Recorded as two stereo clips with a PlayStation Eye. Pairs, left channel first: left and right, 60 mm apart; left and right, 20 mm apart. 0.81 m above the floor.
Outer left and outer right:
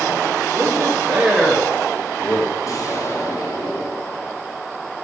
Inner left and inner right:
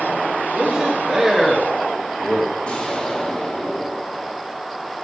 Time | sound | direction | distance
0.5 | a man speaking | 45° right (ahead or behind) | 1.9 m
2.6 | an explosion | 60° left (ahead or behind) | 3 m